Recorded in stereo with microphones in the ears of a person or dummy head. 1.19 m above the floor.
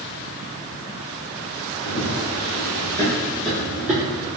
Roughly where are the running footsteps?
Left.